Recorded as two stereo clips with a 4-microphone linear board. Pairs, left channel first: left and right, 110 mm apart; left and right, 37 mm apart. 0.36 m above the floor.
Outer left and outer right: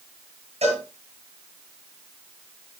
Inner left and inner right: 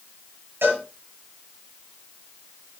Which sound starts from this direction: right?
A cowbell, at 0.6 s.